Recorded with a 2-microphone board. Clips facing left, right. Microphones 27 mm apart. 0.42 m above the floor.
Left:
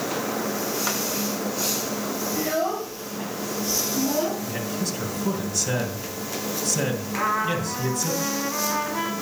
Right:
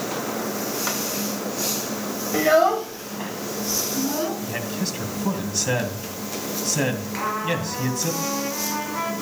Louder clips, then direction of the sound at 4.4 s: Right 1 dB; 25° right (ahead or behind).